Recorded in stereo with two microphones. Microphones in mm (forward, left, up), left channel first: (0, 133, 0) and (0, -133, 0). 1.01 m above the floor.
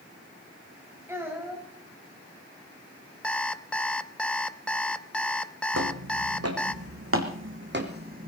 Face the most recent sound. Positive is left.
turn(degrees=-30)  # may be behind; listen again after turning